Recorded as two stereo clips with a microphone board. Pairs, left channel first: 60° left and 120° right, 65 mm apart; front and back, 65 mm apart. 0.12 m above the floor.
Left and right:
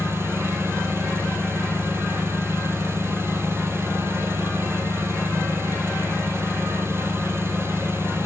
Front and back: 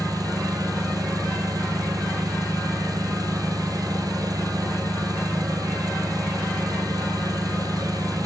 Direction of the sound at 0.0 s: 170° right.